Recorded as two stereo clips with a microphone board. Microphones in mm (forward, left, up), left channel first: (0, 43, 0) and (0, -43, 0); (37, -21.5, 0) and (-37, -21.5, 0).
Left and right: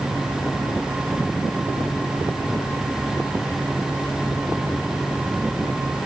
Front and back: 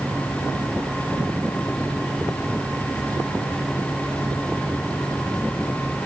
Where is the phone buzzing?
No phone buzzing in this recording.